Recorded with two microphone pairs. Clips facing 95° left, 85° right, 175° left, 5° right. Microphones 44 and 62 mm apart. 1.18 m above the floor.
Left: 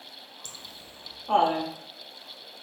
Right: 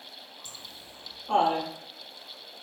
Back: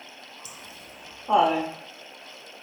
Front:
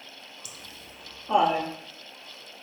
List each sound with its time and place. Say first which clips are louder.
0.5 s laughter: left 1 dB, back 2 dB; 120° left, 0.5 m; by 1.7 s 175° left, 1.2 m